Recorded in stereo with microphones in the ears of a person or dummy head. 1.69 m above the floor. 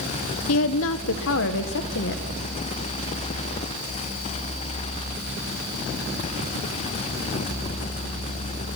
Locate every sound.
0.5 s a woman speaking: 75° left (ahead or behind), 1.0 m; by 2.2 s 60° left (ahead or behind), 1.8 m